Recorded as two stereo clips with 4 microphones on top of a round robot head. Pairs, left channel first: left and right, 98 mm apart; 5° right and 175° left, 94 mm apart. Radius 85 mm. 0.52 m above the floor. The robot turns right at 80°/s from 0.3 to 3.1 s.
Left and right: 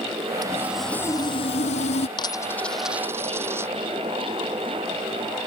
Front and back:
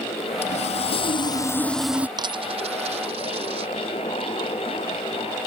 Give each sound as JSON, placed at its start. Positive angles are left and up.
{"t": 0.4, "sound": "sawing", "azimuth_deg": -30}
{"t": 2.2, "sound": "a dropped coin", "azimuth_deg": 130}